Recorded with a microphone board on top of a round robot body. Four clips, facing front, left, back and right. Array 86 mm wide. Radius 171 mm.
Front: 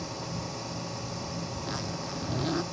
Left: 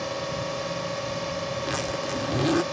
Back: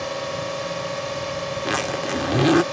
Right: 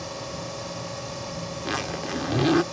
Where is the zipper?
170° right.